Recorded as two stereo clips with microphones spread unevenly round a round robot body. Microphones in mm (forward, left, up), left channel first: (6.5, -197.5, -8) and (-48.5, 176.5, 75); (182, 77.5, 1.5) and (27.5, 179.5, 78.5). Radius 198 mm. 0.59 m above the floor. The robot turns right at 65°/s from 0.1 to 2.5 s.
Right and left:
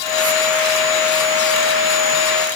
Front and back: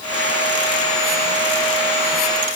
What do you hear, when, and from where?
Only background noise.